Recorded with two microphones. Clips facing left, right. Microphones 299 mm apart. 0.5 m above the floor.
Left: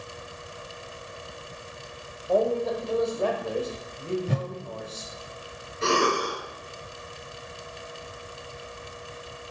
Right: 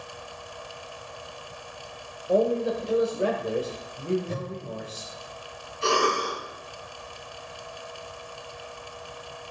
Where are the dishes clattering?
No dishes clattering in this recording.